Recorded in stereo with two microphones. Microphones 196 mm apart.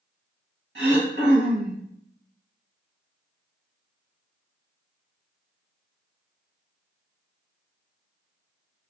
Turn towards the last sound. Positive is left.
turn(degrees=-70)  # may be behind; listen again after turning